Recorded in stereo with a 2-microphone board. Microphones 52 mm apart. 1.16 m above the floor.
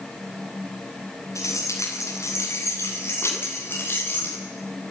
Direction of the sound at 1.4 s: 60° left (ahead or behind).